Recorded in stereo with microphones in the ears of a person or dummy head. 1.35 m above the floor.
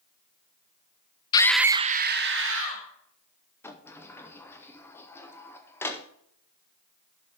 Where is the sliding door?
5° left (ahead or behind), 0.7 m.